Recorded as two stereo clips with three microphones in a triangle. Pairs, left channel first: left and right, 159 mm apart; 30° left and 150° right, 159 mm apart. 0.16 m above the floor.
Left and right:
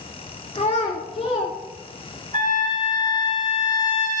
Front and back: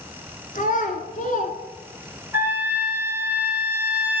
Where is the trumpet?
75° right, 2.5 m.